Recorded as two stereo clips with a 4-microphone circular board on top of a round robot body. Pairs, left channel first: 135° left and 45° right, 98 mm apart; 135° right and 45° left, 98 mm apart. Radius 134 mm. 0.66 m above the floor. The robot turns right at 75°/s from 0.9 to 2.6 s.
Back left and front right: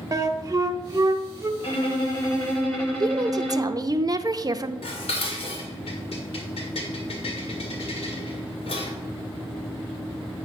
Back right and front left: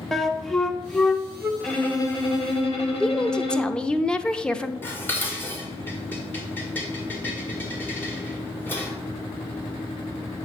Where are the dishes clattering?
155° left, 1.8 m.